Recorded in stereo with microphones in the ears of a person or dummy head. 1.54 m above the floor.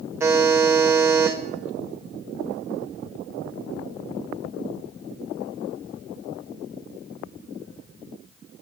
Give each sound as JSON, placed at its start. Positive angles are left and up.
{"t": 0.2, "sound": "a buzzer", "side_deg": -20, "distance_m": 0.9}